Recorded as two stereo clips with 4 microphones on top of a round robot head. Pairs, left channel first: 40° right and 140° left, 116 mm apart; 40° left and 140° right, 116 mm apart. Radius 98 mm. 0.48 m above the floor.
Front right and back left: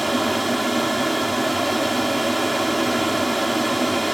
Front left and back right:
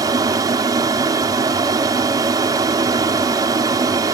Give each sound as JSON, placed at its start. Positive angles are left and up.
{"t": 0.0, "sound": "an aircraft", "azimuth_deg": -130}